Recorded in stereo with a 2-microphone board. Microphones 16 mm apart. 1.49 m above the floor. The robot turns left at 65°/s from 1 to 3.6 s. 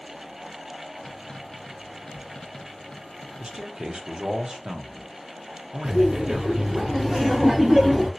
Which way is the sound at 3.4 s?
50° right (ahead or behind).